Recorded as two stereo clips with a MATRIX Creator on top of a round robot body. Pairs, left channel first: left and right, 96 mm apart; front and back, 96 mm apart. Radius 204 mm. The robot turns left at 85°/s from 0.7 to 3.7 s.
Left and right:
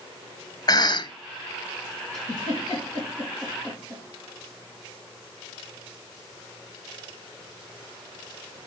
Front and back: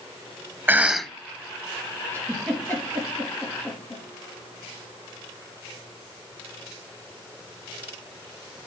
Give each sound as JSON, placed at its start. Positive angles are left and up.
{"t": 0.7, "sound": "a cough", "azimuth_deg": 115, "distance_m": 0.9}
{"t": 2.1, "sound": "a giggle", "azimuth_deg": 120, "distance_m": 4.5}